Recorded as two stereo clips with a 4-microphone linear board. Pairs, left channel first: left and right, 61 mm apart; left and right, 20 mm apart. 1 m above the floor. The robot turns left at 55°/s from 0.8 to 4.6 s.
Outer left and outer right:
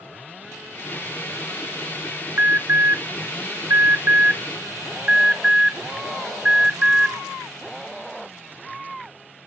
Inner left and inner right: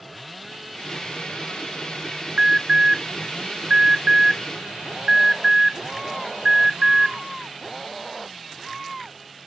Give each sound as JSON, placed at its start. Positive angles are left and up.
{"t": 2.4, "sound": "an alarm", "side_deg": -35, "distance_m": 0.8}